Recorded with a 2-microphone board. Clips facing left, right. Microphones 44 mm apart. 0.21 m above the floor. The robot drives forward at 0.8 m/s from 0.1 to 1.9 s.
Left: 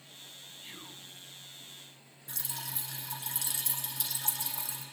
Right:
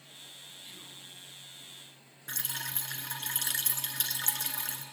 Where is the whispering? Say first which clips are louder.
Left 4 dB; 40° left (ahead or behind), 1.2 m.